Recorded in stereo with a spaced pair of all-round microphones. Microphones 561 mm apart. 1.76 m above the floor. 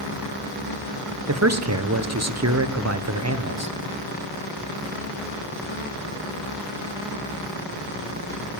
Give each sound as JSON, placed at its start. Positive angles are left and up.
{"t": 1.3, "sound": "a man speaking", "side_deg": -30, "distance_m": 1.1}